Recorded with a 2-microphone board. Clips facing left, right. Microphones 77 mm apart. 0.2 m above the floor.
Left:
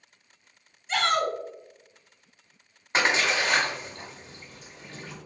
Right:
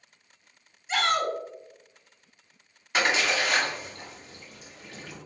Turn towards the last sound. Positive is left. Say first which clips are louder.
# left 1 dB
turn(degrees=30)  # may be behind; listen again after turning